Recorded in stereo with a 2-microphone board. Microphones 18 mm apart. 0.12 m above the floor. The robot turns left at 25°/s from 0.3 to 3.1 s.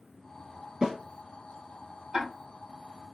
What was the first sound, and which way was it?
A snare drum, 35° right (ahead or behind).